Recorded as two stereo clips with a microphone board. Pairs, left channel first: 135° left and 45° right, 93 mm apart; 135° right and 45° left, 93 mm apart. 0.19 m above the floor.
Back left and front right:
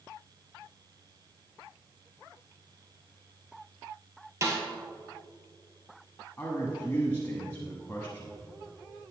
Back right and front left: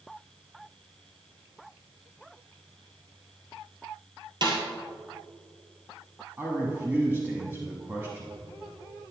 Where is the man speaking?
90° left, 1.2 m.